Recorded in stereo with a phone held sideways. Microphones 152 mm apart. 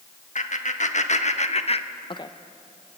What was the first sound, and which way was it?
Laughter, 55° left (ahead or behind).